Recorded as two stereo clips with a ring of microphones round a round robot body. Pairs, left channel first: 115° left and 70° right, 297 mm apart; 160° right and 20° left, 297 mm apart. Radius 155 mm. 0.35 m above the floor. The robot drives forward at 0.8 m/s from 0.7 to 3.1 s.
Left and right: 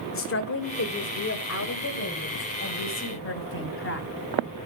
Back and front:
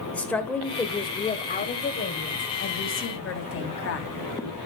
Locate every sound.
0.1 s a woman speaking: 120° left, 1.5 m; by 4.1 s 160° left, 3 m